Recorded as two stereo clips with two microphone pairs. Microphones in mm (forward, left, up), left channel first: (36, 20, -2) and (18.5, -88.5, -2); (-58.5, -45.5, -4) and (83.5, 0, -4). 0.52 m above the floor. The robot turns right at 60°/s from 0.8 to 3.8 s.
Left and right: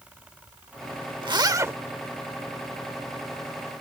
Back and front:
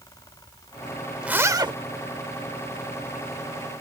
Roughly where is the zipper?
Ahead right.